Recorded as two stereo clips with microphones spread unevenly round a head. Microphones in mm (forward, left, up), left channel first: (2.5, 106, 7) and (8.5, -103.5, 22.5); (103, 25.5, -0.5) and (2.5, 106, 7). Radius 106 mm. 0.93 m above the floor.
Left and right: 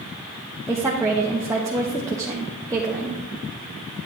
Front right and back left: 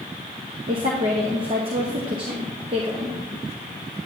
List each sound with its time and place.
0.7 s a woman speaking: 165° right, 1.0 m